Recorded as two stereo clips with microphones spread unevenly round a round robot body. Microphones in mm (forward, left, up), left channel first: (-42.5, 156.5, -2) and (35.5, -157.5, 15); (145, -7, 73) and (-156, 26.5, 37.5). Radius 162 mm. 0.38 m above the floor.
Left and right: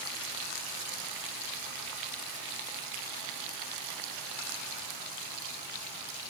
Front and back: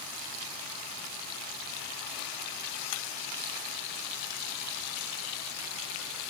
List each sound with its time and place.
Only background noise.